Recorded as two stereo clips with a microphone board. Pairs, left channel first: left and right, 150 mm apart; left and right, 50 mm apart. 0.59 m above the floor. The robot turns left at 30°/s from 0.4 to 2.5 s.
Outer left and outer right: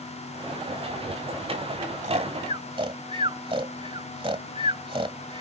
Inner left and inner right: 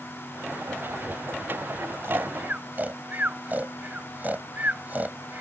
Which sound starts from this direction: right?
Snoring, at 2.0 s.